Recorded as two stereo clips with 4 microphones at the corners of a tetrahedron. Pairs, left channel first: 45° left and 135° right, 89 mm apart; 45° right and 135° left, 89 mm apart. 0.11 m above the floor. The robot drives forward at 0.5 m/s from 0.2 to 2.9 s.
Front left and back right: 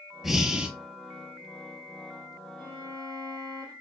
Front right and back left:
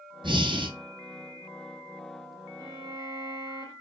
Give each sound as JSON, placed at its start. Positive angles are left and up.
{"t": 0.2, "sound": "breathing", "azimuth_deg": 140, "distance_m": 0.8}
{"t": 2.6, "sound": "a violin", "azimuth_deg": -175, "distance_m": 3.0}